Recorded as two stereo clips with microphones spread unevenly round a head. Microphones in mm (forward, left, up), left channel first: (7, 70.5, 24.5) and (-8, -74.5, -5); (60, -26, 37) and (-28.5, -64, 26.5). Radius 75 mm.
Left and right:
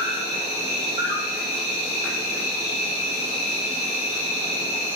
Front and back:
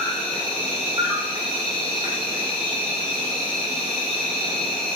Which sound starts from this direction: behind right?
An insect, at 0.0 s.